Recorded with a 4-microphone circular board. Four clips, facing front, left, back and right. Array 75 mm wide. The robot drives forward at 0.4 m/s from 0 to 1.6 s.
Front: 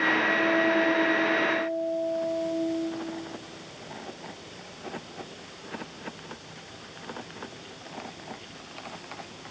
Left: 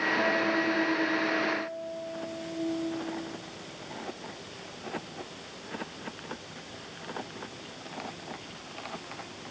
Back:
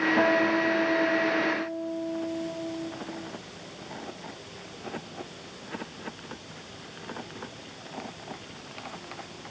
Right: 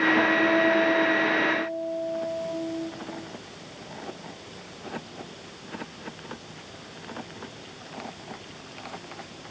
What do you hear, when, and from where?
0.2 s a guitar: 155° right, 5.5 m